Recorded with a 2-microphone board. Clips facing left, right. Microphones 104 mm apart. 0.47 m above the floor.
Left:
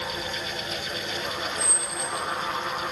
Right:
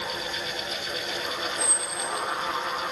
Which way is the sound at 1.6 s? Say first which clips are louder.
Even; 40° right (ahead or behind).